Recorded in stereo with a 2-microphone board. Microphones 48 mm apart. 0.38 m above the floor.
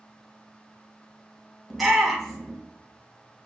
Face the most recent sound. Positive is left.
turn(degrees=0)  # may be behind; listen again after turning